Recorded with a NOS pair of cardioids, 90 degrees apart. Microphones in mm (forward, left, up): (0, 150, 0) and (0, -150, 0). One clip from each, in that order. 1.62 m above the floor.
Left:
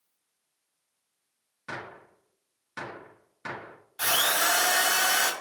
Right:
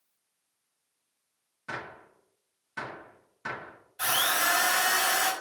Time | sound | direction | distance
1.7 | a gunshot | 15° left | 1.4 m
4.0 | a drill | 40° left | 1.6 m